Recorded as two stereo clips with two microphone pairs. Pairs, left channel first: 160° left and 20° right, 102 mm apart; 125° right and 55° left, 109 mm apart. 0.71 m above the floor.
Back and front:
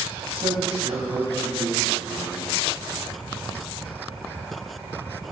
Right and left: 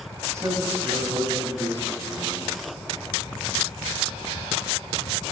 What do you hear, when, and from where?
0.3 s a man speaking: 5° right, 4.5 m